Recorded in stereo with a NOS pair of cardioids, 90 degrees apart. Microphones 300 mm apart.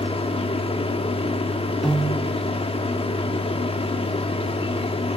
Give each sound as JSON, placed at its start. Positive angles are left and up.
{"t": 0.0, "sound": "a machine running", "azimuth_deg": 20, "distance_m": 1.3}
{"t": 1.8, "sound": "a piano", "azimuth_deg": 0, "distance_m": 0.6}